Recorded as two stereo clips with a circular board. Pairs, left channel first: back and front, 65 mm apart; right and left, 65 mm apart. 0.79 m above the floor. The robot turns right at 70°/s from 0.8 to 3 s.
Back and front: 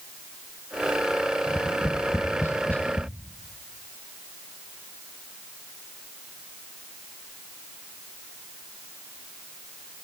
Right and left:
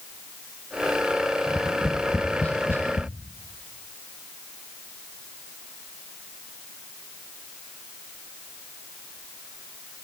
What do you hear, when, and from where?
1.5 s tapping: 145° left, 0.8 m; by 3.1 s 110° right, 0.8 m